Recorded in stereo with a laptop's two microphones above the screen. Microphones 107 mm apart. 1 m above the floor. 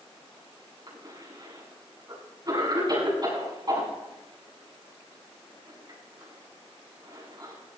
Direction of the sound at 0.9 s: 40° right (ahead or behind).